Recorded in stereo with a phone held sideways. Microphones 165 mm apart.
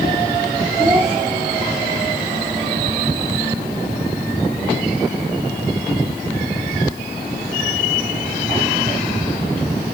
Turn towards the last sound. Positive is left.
turn(degrees=-10)  # may be behind; listen again after turning